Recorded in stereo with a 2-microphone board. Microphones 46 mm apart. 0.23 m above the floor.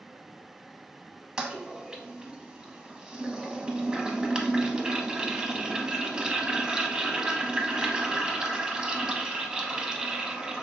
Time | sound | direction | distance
1.4 | a toilet flushing | 20° right (ahead or behind) | 0.6 m